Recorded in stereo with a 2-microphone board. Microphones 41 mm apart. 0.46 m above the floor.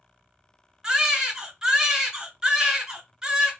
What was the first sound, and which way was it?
A baby crying, 20° right (ahead or behind).